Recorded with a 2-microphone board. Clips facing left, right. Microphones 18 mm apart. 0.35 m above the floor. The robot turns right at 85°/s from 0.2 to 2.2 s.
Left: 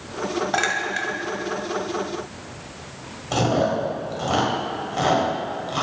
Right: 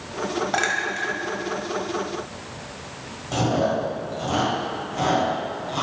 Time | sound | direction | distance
0.5 | a clink | 5° left (ahead or behind) | 1.0 m
3.3 | chewing | 35° left (ahead or behind) | 2 m